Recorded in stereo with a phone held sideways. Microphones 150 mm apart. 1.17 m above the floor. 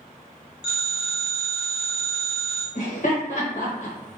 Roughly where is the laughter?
Left.